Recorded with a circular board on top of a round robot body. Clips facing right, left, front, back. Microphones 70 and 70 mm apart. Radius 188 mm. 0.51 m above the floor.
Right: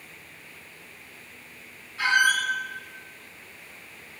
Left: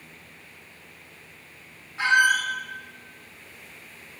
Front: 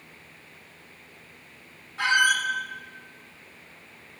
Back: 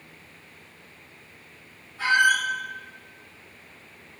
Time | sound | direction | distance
2.0 | a squeak | 25° left | 0.8 m